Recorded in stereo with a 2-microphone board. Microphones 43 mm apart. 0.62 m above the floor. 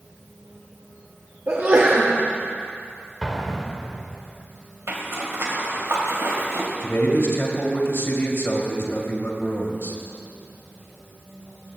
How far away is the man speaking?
About 2.5 m.